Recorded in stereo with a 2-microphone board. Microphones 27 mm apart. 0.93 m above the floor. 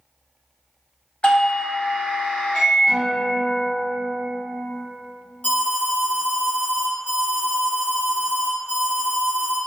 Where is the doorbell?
40° left (ahead or behind), 0.9 m.